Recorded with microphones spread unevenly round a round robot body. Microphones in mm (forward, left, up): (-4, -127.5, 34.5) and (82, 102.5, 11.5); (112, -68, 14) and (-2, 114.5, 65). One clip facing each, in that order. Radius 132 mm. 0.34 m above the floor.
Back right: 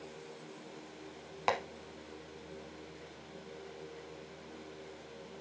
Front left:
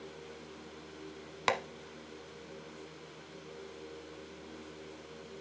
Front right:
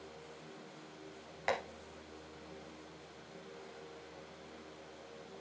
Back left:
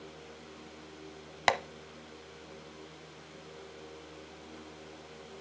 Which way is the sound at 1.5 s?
135° left.